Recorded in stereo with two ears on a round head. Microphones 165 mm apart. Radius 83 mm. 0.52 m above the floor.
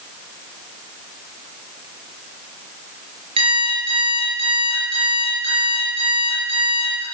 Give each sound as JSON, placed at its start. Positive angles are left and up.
{"t": 3.4, "sound": "an alarm clock", "side_deg": -30, "distance_m": 5.5}